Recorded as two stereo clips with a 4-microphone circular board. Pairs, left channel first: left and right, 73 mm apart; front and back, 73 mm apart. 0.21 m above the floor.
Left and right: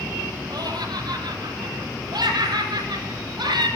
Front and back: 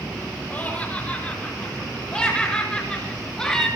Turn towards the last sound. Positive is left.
turn(degrees=-80)